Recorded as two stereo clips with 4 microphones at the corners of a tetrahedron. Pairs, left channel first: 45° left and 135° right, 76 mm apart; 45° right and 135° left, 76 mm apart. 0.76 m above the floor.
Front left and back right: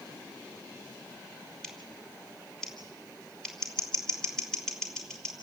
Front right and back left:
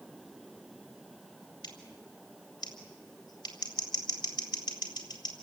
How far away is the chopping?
No chopping in this recording.